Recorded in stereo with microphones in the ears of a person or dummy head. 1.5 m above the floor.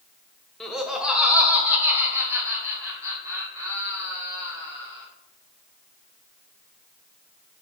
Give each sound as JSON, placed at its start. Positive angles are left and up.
{"t": 0.6, "sound": "laughter", "side_deg": 5, "distance_m": 1.5}